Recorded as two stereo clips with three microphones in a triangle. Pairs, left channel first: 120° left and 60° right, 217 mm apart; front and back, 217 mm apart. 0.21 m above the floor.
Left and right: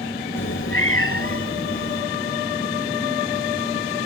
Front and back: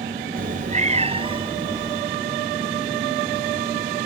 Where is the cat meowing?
135° left; by 2.0 s 105° left.